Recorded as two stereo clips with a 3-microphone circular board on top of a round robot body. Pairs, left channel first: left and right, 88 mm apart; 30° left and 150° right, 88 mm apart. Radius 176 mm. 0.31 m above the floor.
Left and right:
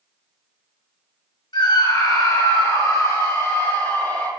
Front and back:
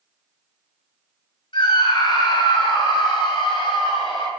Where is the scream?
55° left, 6 m; by 4.3 s 25° left, 7 m.